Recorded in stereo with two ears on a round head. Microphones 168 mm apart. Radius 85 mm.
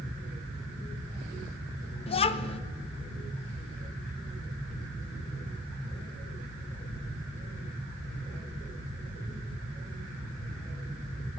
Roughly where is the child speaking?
Left.